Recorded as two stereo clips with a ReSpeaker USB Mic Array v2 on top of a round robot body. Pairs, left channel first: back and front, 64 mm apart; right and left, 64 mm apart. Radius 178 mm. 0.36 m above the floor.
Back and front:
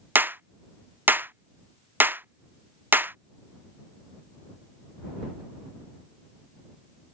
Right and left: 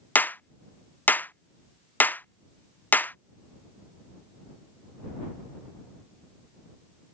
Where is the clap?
45° right.